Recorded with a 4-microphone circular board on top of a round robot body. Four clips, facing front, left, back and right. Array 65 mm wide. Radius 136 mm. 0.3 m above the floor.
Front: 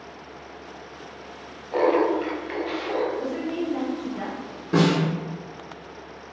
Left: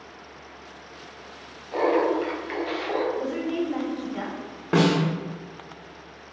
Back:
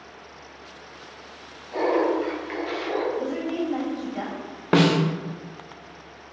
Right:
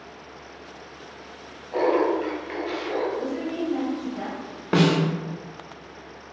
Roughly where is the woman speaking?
Left.